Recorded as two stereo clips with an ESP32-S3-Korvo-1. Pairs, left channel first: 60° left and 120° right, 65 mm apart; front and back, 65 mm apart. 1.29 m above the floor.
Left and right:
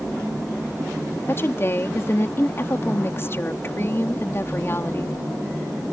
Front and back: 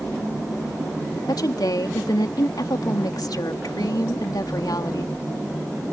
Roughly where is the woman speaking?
Ahead.